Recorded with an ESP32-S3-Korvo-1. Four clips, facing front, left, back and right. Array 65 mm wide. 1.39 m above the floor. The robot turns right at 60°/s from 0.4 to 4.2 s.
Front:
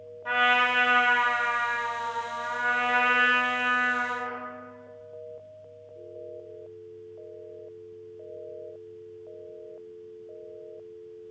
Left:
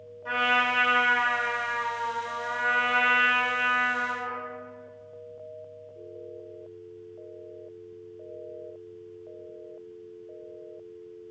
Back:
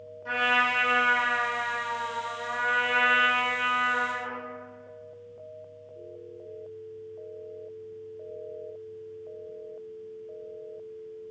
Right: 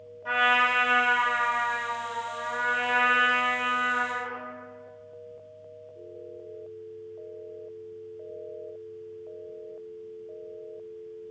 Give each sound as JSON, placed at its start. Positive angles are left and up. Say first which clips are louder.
{"t": 0.2, "sound": "a trumpet", "louder": "right 2 dB, front 2 dB", "azimuth_deg": -20, "distance_m": 1.2}